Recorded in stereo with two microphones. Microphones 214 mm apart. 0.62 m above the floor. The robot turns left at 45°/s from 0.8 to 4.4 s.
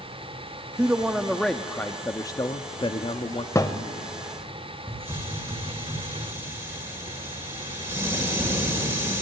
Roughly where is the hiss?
Centre.